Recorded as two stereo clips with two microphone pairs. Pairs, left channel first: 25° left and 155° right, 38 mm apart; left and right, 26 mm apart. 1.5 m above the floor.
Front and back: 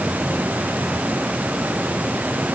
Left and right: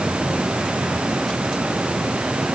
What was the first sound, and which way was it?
Only background noise.